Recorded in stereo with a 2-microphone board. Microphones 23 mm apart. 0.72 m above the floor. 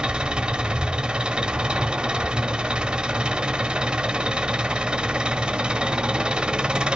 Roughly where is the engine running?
Right.